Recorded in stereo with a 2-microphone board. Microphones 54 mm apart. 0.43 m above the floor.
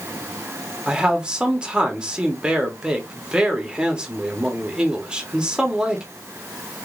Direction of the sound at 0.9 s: 20° right (ahead or behind).